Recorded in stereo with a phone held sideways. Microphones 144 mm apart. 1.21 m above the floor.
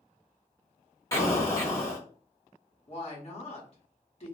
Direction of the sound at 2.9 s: 45° left (ahead or behind).